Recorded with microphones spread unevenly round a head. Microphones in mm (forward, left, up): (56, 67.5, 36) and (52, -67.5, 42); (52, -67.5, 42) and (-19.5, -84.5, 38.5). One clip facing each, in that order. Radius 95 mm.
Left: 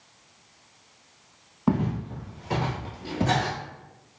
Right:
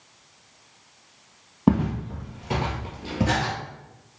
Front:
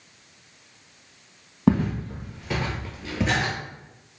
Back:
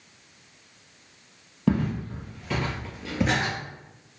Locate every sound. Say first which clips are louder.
1.7 s footsteps: right 4 dB, front 3 dB; 40° right, 1.8 m; by 3.5 s 170° right, 1.1 m